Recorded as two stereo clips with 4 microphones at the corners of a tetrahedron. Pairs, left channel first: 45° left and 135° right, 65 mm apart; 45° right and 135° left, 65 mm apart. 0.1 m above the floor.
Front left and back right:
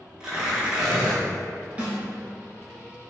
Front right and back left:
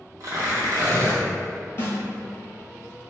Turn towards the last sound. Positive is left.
turn(degrees=-75)